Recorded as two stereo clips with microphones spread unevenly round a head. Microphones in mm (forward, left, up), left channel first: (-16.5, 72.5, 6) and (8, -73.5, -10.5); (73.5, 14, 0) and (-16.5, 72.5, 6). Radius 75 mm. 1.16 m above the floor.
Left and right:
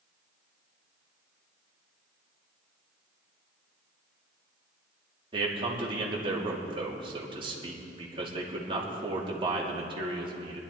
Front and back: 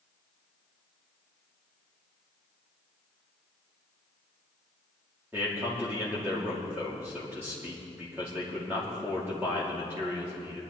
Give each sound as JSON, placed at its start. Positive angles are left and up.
{"t": 5.3, "sound": "a man speaking", "azimuth_deg": -135, "distance_m": 2.5}